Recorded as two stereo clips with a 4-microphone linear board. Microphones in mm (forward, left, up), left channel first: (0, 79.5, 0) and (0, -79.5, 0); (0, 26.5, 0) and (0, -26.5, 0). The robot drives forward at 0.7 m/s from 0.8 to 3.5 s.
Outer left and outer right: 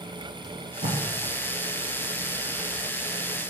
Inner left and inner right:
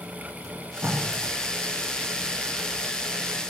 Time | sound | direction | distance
0.4 | tape being pulled | 50° right (ahead or behind) | 8 m